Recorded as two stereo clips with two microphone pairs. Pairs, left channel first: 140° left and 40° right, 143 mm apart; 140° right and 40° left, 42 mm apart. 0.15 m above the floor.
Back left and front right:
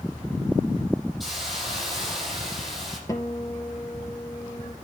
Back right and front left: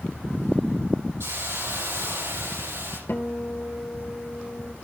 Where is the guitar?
155° right, 2 m.